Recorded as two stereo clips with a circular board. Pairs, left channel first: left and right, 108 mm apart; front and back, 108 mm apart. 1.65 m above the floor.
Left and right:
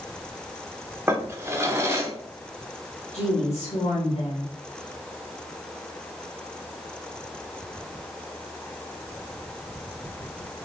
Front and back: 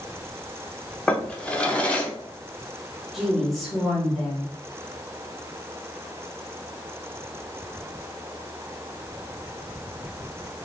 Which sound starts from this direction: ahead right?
A drawer, at 1.1 s.